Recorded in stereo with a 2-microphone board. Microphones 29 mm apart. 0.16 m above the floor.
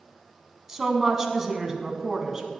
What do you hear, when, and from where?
0.7 s a woman speaking: 15° right (ahead or behind), 1.1 m